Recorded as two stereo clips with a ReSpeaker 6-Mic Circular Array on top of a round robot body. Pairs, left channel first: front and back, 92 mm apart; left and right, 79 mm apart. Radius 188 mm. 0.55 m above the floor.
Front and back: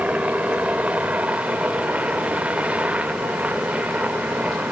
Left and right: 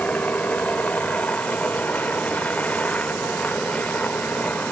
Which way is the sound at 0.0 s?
130° left.